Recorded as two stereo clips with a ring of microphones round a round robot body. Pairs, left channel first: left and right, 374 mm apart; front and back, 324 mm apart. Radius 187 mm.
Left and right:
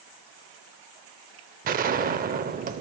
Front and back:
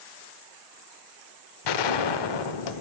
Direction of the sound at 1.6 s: 20° right.